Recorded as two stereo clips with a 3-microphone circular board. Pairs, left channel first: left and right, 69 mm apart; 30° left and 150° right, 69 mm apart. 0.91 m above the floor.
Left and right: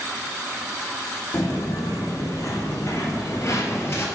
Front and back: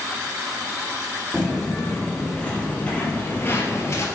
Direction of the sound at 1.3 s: 115° left.